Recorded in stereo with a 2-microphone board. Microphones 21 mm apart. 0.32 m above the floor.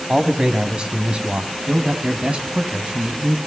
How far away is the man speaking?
About 3 m.